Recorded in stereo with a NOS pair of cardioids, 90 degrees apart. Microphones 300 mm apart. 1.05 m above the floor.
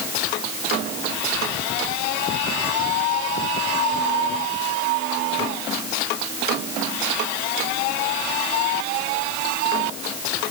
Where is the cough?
No cough in this recording.